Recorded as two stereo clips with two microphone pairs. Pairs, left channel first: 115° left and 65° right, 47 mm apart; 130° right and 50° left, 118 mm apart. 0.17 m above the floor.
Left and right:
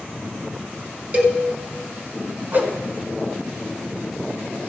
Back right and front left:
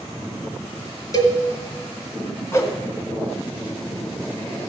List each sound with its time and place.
1.1 s a cowbell: 95° right, 1.6 m
2.5 s a whoosh: 80° right, 1.2 m